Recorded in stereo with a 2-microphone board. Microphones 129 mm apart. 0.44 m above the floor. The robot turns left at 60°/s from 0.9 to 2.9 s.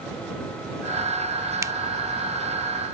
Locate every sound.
1.6 s a finger snap: 25° right (ahead or behind); by 1.7 s 30° right (ahead or behind)